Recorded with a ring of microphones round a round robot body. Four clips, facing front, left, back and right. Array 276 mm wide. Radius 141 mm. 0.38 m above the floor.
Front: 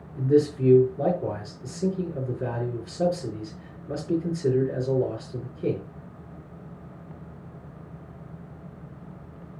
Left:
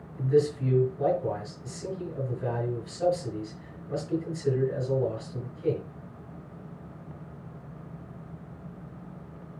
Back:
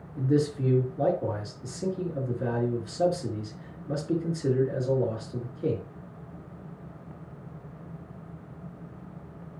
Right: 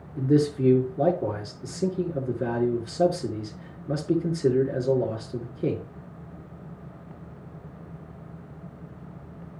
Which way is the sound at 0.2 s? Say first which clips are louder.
Right 2 dB, front 4 dB; 90° right.